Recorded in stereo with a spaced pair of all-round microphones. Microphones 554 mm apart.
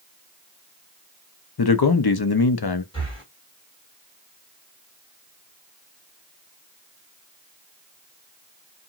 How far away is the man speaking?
About 0.5 m.